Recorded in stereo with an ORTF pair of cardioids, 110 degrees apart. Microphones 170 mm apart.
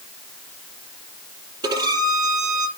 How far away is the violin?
About 5.5 m.